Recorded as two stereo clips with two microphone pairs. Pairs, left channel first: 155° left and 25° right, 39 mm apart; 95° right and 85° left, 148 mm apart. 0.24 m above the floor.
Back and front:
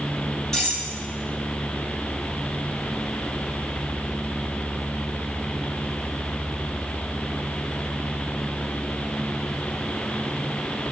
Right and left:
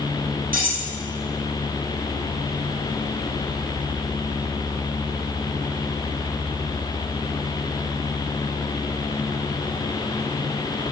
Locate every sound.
0.5 s cutlery clinking: 80° left, 4.5 m